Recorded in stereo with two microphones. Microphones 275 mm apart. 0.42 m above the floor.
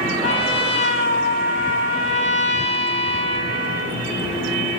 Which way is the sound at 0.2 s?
45° left (ahead or behind).